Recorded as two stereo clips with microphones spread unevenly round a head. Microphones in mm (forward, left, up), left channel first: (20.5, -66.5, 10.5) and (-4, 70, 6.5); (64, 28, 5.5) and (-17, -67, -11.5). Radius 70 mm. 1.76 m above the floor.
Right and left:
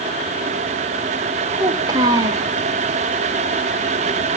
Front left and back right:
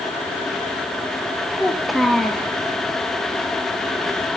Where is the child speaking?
125° left, 1.0 m.